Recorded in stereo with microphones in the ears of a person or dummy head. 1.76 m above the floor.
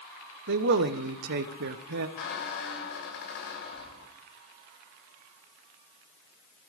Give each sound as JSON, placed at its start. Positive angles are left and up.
{"t": 0.5, "sound": "a man speaking", "side_deg": -55, "distance_m": 1.1}
{"t": 2.2, "sound": "a squeak", "side_deg": 50, "distance_m": 2.0}